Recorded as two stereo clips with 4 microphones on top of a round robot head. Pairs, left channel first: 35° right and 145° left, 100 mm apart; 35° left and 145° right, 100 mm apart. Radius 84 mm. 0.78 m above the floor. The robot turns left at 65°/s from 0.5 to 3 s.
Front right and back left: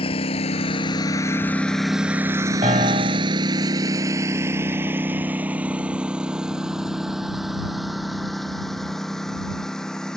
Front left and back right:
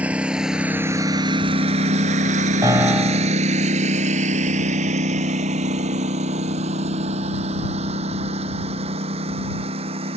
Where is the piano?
160° left; by 3.4 s 135° left.